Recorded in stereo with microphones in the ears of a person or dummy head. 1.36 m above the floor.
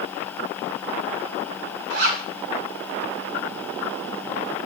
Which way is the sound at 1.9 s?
60° right (ahead or behind).